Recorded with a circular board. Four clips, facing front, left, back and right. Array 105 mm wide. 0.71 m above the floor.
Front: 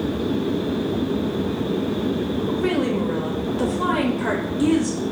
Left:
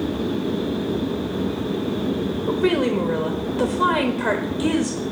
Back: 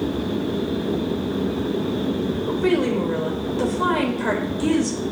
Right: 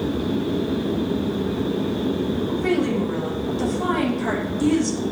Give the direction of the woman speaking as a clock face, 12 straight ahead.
9 o'clock.